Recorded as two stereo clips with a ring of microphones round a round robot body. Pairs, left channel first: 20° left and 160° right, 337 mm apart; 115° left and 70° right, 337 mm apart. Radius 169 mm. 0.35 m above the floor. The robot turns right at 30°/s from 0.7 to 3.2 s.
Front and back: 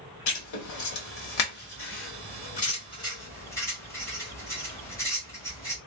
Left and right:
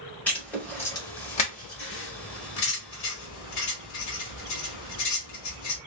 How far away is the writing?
About 1.4 m.